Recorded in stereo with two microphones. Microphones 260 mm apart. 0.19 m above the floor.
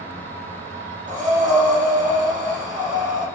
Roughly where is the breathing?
Right.